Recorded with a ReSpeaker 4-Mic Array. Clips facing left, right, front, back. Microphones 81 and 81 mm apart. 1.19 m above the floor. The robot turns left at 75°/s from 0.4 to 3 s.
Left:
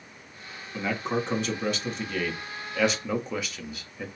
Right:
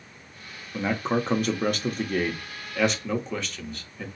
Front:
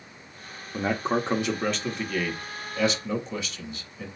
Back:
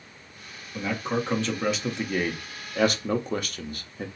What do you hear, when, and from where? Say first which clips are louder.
0.7 s a man speaking: right 3 dB, front 2 dB; 20° right, 0.9 m; by 4.1 s 170° left, 0.9 m